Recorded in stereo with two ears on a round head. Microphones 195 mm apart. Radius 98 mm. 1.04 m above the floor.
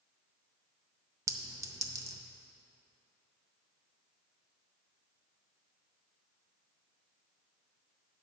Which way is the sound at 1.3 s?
15° right (ahead or behind).